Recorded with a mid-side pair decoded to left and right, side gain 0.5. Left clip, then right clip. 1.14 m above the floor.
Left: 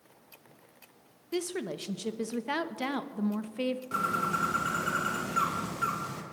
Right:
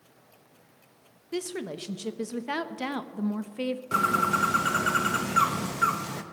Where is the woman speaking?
Straight ahead, 1.0 m.